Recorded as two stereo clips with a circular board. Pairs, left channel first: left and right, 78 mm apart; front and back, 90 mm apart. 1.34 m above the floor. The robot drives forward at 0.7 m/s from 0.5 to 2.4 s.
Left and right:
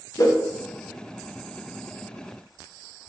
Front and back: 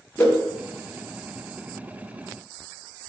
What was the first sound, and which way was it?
A whoosh, 70° left.